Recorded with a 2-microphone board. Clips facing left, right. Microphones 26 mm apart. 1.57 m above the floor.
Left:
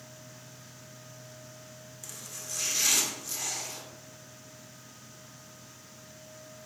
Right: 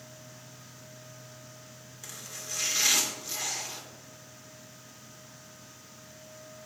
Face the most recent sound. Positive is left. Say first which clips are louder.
# right 2 dB
turn(degrees=-15)  # may be behind; listen again after turning